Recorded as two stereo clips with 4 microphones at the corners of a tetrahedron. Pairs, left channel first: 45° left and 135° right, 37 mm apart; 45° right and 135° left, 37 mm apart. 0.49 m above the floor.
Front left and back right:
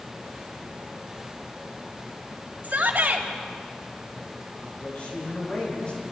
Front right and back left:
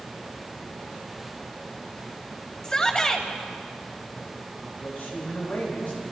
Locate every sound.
2.6 s a shout: 110° right, 3 m
4.8 s a man speaking: 15° right, 8 m